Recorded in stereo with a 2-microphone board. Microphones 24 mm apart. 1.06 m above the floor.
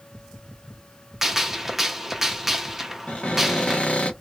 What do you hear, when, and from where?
1.2 s a gunshot: 15° right (ahead or behind), 0.5 m
3.1 s a cupboard door: 60° left (ahead or behind), 1.0 m